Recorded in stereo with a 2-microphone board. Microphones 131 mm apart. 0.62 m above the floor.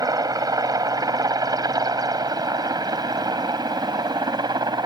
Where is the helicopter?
30° right (ahead or behind).